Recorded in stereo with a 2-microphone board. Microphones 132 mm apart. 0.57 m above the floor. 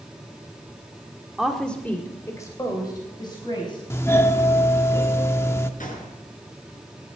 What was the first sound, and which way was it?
A woman speaking, 5° right (ahead or behind).